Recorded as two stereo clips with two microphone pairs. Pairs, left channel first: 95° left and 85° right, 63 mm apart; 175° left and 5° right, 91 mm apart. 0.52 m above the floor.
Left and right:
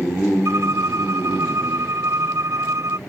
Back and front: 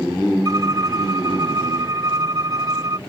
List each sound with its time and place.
0.5 s a violin: 55° right